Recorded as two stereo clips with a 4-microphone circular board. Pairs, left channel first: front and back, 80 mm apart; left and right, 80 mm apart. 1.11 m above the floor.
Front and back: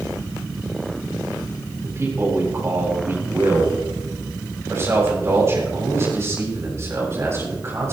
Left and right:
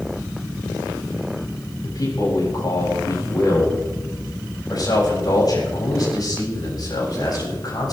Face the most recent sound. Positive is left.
turn(degrees=125)